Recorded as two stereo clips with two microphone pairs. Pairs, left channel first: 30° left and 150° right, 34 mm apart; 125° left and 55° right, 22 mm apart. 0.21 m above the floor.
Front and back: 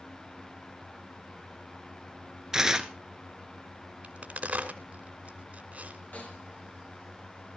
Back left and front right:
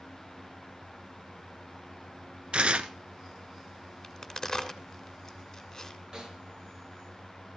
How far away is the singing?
No singing in this recording.